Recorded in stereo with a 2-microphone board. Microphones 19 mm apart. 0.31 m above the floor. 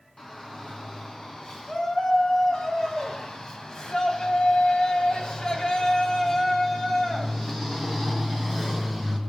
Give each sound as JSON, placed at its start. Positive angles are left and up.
{"t": 0.2, "sound": "a shout", "side_deg": 35, "distance_m": 4.0}